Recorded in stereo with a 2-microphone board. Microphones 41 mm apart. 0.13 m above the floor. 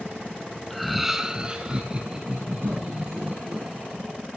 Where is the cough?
65° right (ahead or behind), 8 m.